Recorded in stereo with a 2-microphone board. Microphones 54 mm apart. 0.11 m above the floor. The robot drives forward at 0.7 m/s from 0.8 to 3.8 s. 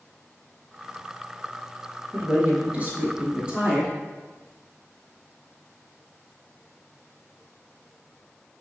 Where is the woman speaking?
30° right (ahead or behind), 1.2 m; by 3.9 s 20° right (ahead or behind), 1.7 m.